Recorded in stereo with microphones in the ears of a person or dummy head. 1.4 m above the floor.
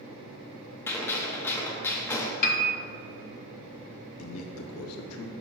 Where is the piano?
40° left (ahead or behind), 0.7 m.